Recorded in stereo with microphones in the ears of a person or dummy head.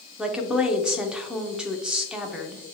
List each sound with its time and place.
0.2 s a woman speaking: centre (ahead or behind), 0.5 m